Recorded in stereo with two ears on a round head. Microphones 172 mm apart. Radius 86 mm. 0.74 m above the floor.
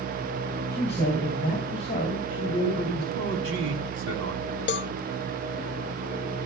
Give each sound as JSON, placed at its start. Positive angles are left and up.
{"t": 0.7, "sound": "a man speaking", "side_deg": 35, "distance_m": 4.5}
{"t": 3.1, "sound": "a man speaking", "side_deg": -70, "distance_m": 5.5}
{"t": 4.7, "sound": "a cowbell", "side_deg": 60, "distance_m": 0.7}